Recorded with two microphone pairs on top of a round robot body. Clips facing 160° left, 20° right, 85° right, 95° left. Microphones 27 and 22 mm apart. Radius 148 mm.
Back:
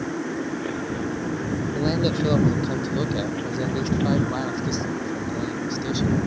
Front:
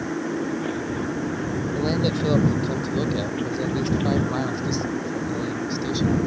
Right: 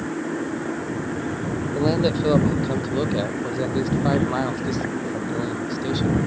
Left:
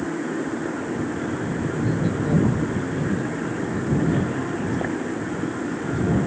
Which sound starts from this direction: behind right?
A man speaking, at 1.8 s.